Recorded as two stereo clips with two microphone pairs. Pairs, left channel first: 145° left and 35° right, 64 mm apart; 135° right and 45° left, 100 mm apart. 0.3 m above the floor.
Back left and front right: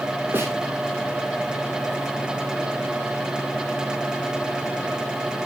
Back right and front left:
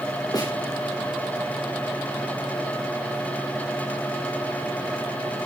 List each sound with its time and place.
0.3 s a snare drum: 85° right, 9.5 m